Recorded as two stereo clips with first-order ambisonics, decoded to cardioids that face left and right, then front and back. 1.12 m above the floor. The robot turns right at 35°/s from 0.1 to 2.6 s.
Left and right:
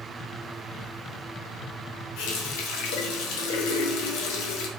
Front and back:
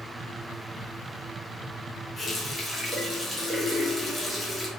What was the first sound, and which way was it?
A running tap, 75° left.